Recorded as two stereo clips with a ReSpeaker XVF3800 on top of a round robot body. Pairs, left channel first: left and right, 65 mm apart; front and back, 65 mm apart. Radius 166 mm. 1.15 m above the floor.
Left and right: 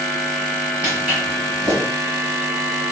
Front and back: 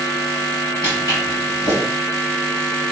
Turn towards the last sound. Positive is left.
turn(degrees=-20)